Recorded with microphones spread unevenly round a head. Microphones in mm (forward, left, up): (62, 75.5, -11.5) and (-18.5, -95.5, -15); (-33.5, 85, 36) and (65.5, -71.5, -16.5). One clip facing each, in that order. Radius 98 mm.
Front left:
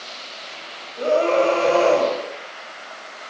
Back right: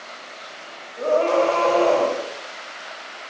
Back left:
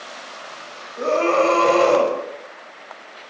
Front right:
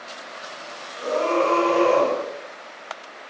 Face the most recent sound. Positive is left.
turn(degrees=135)